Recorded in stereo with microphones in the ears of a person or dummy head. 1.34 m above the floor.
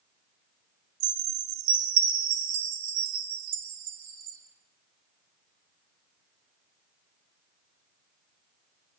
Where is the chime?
75° right (ahead or behind), 3 m.